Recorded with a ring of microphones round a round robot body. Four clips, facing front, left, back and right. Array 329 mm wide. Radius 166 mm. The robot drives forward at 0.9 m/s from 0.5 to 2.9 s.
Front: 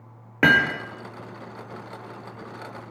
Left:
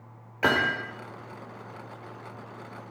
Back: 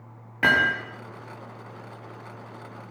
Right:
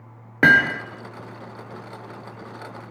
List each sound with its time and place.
0.4 s hammering: 55° right, 5 m; by 0.8 s 60° right, 5 m